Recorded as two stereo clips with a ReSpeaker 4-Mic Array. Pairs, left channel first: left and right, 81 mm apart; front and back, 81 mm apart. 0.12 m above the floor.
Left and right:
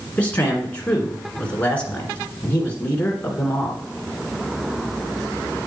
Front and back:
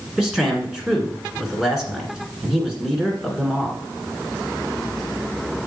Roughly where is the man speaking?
Left.